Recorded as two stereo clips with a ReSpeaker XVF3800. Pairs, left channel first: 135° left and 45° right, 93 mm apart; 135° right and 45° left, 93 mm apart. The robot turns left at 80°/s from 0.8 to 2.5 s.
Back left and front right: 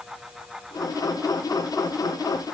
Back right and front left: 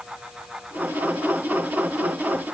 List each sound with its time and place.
Only background noise.